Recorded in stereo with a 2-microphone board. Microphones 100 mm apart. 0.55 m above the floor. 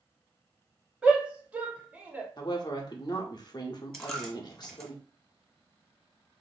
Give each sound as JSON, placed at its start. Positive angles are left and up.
{"t": 1.0, "sound": "a shout", "side_deg": -10, "distance_m": 0.8}
{"t": 2.4, "sound": "a woman speaking", "side_deg": 45, "distance_m": 0.8}
{"t": 3.9, "sound": "a dropped coin", "side_deg": 5, "distance_m": 1.0}